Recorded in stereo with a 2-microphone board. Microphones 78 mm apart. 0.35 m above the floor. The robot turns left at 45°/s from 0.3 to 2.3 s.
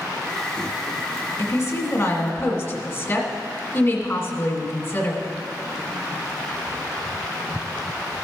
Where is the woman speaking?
105° left, 1.6 m; by 5.3 s 65° left, 1.6 m.